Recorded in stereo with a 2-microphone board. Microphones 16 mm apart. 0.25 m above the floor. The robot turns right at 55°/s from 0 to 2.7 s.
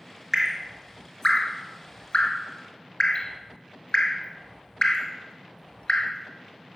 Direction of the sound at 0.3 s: 20° right (ahead or behind).